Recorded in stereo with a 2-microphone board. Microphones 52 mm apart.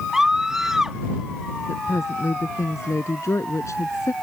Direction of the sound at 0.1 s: 10° right (ahead or behind).